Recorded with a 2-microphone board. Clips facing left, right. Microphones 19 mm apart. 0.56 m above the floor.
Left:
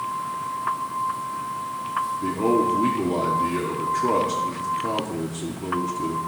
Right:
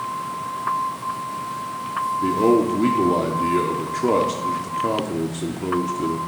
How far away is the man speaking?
About 0.8 m.